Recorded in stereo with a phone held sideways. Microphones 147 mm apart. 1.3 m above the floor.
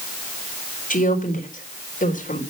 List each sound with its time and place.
0.9 s a woman speaking: 65° left (ahead or behind), 4 m